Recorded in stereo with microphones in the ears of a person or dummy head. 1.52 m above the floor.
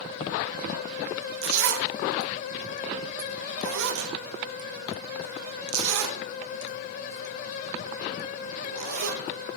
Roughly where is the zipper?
Right.